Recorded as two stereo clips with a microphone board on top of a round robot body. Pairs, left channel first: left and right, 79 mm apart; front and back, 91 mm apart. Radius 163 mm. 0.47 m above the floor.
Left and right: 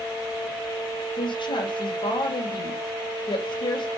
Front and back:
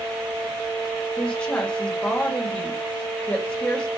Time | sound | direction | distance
1.2 | a woman speaking | 80° left | 2.5 m